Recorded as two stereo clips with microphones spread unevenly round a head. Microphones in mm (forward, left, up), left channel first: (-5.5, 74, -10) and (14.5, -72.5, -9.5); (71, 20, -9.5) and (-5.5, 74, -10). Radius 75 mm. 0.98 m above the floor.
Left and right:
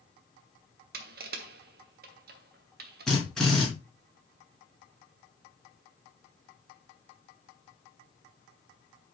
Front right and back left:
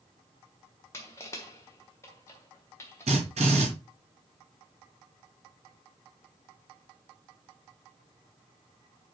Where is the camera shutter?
No camera shutter in this recording.